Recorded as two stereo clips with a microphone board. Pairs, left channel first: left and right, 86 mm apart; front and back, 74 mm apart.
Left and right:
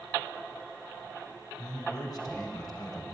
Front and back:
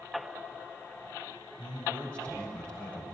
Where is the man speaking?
70° left, 1.6 m.